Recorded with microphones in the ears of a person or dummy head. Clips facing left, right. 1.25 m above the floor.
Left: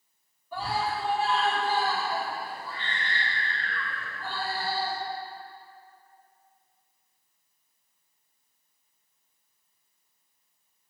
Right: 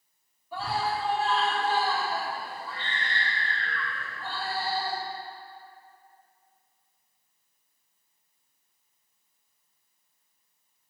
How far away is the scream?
About 2.5 m.